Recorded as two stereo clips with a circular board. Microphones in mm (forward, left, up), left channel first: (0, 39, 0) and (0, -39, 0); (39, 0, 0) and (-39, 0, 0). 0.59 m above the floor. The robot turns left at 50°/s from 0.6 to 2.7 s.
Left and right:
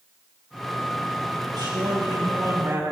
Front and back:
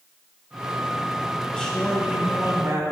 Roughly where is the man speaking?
Right.